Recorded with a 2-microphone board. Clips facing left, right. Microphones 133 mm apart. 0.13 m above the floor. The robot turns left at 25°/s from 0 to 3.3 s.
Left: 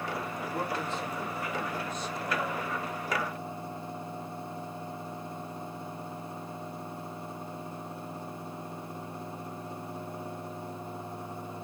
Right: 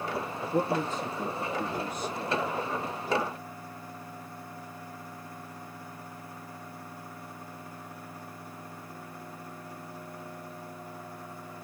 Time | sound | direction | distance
0.4 | a man speaking | 105° right | 2.5 m